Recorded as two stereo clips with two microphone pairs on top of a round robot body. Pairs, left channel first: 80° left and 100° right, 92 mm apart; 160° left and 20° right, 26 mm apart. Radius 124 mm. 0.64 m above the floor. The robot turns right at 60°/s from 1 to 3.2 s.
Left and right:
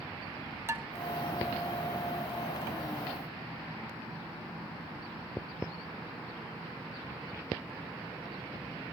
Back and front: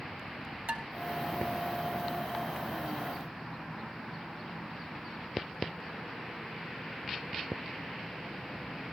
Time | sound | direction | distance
0.7 | dishes clattering | 35° right | 1.5 m